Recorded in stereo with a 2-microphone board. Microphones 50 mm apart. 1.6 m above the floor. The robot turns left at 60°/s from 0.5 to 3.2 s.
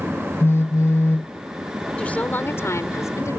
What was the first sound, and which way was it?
A phone buzzing, 110° left.